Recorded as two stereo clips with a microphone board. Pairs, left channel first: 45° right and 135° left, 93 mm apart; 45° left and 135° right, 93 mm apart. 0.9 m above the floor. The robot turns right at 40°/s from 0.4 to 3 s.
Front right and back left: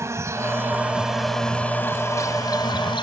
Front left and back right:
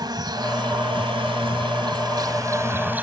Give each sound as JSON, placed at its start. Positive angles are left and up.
{"t": 0.0, "sound": "an insect", "azimuth_deg": -170}